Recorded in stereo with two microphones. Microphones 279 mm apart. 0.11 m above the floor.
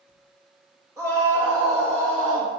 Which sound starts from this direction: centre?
A scream, at 1.0 s.